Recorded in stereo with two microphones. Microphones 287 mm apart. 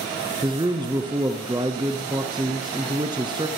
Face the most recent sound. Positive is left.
turn(degrees=-15)  # may be behind; listen again after turning